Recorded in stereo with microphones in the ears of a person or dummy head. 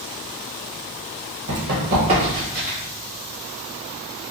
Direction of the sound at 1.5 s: 50° right (ahead or behind).